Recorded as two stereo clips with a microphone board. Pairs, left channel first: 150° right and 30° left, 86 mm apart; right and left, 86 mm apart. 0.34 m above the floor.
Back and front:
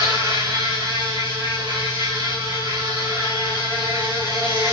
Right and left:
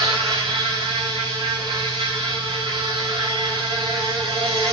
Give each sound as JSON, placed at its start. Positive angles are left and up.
{"t": 0.0, "sound": "an insect", "azimuth_deg": 75, "distance_m": 4.5}